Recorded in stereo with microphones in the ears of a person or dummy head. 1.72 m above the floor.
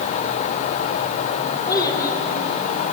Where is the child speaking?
25° left (ahead or behind), 5 m.